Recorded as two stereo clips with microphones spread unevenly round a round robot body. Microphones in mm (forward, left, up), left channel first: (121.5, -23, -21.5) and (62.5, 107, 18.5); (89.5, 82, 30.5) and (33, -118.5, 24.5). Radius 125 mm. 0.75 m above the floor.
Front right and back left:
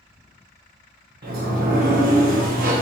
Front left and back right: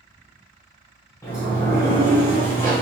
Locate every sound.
1.2 s a sliding door: 150° left, 0.8 m